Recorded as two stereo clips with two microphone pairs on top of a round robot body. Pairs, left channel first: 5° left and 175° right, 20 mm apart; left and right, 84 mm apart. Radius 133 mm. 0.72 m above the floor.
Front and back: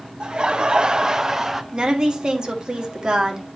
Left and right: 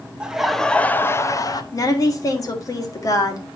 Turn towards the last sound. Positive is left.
turn(degrees=135)